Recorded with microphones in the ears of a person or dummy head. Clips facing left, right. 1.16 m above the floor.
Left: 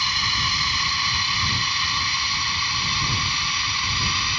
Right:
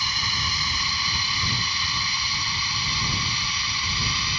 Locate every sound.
0.0 s a drone: 60° left (ahead or behind); by 4.4 s 55° left (ahead or behind)